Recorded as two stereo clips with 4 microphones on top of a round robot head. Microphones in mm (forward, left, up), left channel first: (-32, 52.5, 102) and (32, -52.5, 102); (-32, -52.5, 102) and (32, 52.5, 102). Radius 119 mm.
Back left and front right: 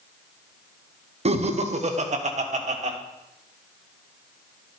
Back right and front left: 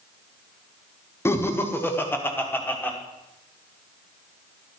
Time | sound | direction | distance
1.2 | laughter | 55° right | 1.4 m